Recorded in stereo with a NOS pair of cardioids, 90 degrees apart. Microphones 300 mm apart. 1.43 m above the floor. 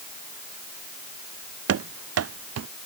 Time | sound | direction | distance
1.7 | running footsteps | 60° right | ?